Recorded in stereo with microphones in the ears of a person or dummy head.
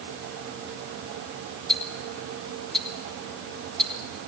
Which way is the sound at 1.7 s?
Centre (ahead or behind).